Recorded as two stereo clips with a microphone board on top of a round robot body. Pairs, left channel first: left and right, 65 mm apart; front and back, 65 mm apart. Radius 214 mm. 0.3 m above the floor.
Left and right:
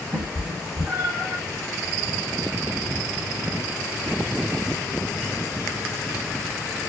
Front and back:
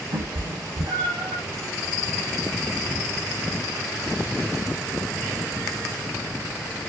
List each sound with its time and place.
0.1 s a cat meowing: 160° right, 0.7 m